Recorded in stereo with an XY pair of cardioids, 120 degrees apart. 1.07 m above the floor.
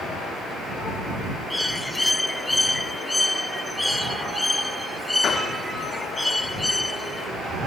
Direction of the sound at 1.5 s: 10° left.